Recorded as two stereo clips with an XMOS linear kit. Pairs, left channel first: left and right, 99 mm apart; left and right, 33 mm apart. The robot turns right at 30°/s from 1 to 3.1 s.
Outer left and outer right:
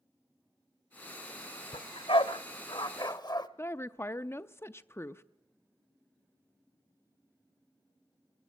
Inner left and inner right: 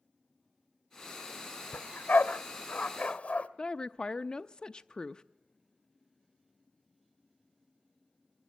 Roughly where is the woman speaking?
Left.